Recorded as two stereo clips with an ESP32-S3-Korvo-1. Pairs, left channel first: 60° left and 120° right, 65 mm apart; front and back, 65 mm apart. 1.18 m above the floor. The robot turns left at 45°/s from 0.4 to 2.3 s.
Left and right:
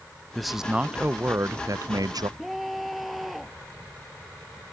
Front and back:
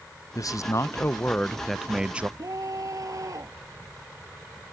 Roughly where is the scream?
Behind left.